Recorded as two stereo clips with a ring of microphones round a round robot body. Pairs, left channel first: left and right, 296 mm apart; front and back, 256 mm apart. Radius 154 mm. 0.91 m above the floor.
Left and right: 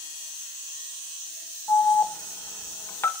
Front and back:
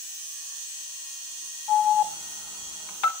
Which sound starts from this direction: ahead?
An alarm, at 1.7 s.